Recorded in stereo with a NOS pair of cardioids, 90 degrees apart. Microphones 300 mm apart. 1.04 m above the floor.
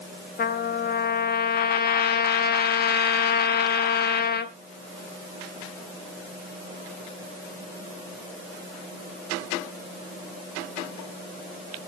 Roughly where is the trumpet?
Ahead left.